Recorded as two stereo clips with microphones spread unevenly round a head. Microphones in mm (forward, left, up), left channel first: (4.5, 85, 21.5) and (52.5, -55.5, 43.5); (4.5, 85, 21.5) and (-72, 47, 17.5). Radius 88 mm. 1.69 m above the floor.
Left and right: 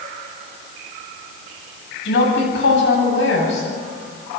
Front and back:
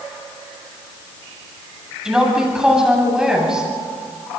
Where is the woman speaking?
125° left, 9.5 m.